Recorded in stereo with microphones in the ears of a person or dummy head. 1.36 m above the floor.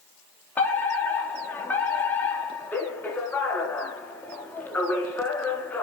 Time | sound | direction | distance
0.6 | a fire alarm | 10° left (ahead or behind) | 4.5 m